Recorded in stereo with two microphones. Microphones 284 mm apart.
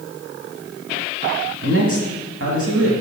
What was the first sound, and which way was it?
A man speaking, 50° right (ahead or behind).